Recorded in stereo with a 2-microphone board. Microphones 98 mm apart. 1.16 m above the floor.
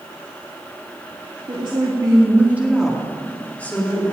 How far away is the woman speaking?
About 2 m.